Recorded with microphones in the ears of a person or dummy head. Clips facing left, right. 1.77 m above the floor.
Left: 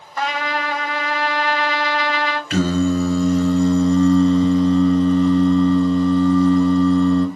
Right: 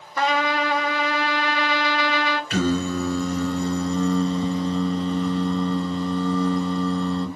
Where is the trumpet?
65° right (ahead or behind), 0.6 m.